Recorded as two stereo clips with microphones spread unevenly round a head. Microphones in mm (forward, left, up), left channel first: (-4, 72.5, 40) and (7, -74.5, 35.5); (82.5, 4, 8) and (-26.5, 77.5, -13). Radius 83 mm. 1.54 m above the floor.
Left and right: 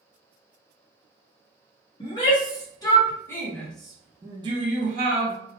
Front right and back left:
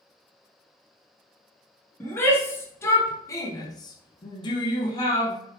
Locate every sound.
2.0 s a shout: 35° left, 1.4 m; by 5.3 s 90° right, 0.7 m